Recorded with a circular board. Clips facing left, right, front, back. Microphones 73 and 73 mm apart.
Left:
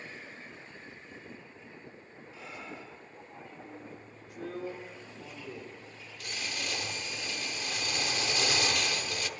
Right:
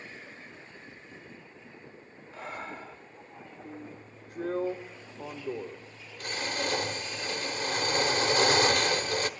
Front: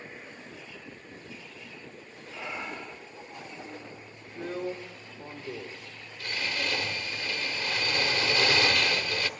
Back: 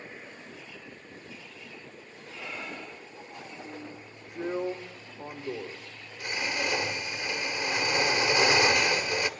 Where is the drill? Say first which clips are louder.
Right 3 dB, back 1 dB; 115° right, 1.6 m.